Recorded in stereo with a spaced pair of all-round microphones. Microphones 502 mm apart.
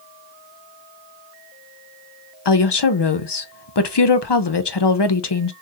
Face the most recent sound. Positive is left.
turn(degrees=55)  # may be behind; listen again after turning